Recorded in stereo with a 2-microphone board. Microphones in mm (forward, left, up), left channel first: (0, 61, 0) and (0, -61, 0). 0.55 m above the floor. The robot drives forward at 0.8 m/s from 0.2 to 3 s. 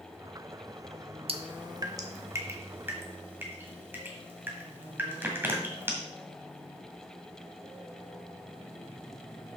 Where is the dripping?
50° right (ahead or behind), 0.7 m; by 5.9 s 15° right (ahead or behind), 1.9 m.